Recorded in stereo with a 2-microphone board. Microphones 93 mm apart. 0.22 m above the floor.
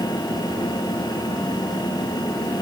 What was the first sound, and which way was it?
Only background noise.